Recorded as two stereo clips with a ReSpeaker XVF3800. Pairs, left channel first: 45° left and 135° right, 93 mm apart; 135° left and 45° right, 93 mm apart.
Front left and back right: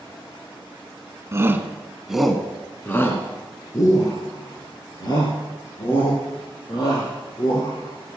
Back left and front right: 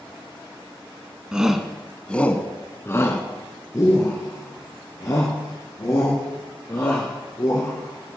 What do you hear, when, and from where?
1.3 s a shout: 120° right, 1.2 m; by 8.2 s 85° left, 5 m